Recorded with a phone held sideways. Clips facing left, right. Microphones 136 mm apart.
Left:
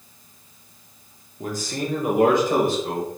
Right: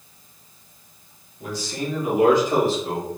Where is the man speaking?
45° left (ahead or behind), 1.0 m; by 3.1 s 50° left (ahead or behind), 2.5 m.